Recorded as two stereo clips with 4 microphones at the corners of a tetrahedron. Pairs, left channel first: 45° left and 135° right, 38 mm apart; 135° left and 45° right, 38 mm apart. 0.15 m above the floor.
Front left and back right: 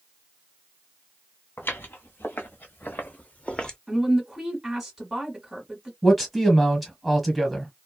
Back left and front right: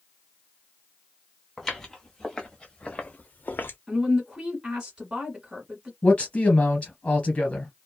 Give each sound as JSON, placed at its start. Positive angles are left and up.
{"t": 1.6, "sound": "footsteps", "azimuth_deg": 50, "distance_m": 1.6}
{"t": 3.9, "sound": "a woman speaking", "azimuth_deg": -55, "distance_m": 1.3}
{"t": 6.0, "sound": "a man speaking", "azimuth_deg": 135, "distance_m": 1.3}